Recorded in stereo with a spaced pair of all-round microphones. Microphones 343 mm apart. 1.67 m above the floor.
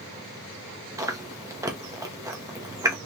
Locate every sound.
1.0 s chewing: 10° right (ahead or behind), 0.8 m